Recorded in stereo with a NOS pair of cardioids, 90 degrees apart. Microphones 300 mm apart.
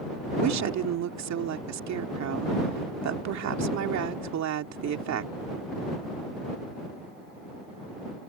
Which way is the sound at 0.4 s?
65° right.